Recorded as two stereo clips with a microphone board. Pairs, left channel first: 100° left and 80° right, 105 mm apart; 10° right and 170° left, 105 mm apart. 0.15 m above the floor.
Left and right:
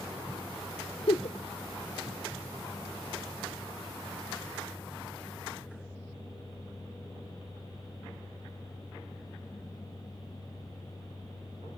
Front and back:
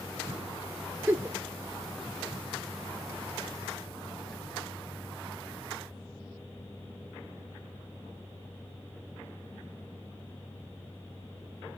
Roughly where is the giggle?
Left.